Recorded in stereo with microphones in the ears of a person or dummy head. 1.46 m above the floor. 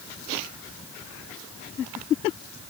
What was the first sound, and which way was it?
Only background noise.